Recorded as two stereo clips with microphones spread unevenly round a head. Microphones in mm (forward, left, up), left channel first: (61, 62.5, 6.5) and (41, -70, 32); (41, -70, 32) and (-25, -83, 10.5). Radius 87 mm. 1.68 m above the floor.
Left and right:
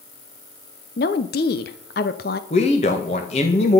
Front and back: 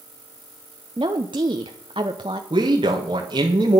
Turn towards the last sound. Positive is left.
turn(degrees=140)